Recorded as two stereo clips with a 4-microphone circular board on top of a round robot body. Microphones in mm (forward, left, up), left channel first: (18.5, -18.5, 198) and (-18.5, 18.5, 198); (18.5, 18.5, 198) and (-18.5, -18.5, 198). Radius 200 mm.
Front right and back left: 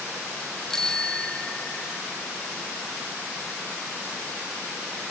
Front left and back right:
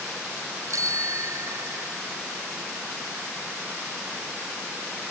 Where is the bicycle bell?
125° right; by 2.0 s 105° right.